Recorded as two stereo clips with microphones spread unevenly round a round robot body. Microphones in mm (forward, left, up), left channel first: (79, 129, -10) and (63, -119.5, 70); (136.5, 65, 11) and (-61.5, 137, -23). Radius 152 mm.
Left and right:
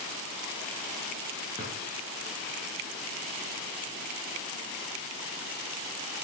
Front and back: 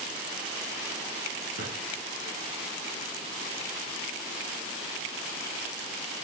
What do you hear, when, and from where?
1.6 s a drawer: 175° right, 3.5 m